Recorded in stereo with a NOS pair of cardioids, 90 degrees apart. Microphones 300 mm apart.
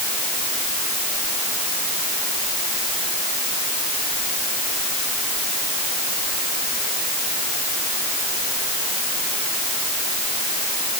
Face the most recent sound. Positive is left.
No sound to turn to.